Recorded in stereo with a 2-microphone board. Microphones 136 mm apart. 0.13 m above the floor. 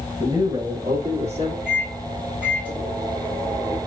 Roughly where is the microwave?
Centre.